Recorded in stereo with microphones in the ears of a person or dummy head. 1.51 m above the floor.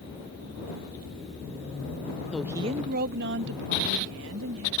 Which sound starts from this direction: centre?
A woman speaking, at 2.3 s.